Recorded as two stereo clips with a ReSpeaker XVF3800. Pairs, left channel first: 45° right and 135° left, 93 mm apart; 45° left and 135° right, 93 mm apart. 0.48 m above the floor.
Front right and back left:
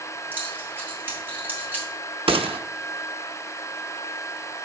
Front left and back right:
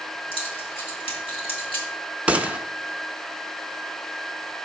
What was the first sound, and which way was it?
Keys jangling, 65° left.